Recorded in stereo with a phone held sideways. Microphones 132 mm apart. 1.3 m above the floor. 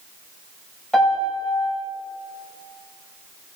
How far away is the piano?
About 6 m.